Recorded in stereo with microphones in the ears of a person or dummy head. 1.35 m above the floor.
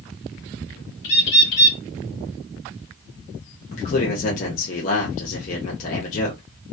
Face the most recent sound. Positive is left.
turn(degrees=40)  # may be behind; listen again after turning